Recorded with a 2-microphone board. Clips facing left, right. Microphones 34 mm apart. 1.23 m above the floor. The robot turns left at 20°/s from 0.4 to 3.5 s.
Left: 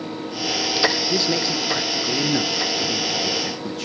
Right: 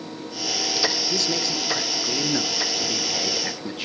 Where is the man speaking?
25° left, 0.6 m; by 3.9 s 20° right, 0.6 m.